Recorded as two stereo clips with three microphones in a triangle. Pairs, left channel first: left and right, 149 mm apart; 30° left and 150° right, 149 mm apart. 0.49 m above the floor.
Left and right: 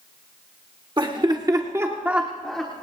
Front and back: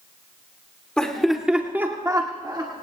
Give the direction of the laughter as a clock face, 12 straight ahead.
2 o'clock.